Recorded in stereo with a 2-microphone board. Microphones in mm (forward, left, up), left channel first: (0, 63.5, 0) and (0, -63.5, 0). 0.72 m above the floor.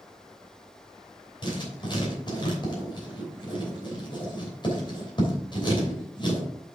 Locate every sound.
1.4 s writing: 40° left (ahead or behind), 3 m